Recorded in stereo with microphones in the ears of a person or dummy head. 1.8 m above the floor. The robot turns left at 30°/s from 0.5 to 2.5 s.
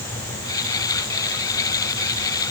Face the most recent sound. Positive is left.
No sound to turn to.